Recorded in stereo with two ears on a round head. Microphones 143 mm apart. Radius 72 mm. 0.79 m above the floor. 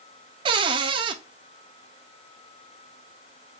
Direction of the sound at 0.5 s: 30° right (ahead or behind).